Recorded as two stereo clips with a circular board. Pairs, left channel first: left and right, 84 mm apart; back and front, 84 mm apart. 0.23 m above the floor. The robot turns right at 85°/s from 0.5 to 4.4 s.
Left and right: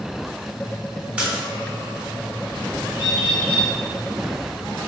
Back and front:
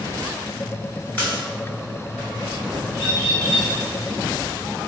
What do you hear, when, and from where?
1.2 s a splash: 145° right, 1.3 m; by 1.4 s 120° right, 1.3 m
2.9 s a bird: 60° right, 1.6 m; by 3.7 s 5° left, 1.6 m